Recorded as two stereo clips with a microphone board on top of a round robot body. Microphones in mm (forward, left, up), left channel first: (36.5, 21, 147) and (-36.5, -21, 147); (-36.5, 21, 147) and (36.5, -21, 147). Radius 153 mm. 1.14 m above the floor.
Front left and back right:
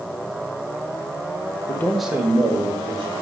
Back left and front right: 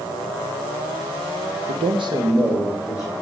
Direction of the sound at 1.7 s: 30° right.